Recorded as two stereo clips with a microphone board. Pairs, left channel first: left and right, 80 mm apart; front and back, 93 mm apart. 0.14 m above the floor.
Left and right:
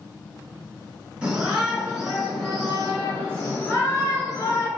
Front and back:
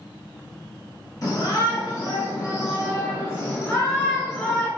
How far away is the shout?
About 1.9 m.